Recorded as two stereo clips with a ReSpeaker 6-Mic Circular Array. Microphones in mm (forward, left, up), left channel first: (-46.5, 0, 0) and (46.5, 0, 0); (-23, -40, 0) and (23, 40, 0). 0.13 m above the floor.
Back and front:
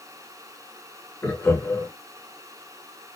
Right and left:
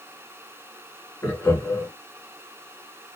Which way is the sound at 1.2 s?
150° right.